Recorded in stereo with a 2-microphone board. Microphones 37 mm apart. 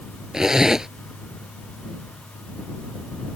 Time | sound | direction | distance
0.3 | a zipper | 15° right (ahead or behind) | ?